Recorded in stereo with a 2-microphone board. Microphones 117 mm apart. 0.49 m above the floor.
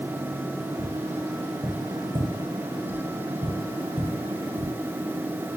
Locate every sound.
0.8 s tapping: 40° right (ahead or behind), 1.0 m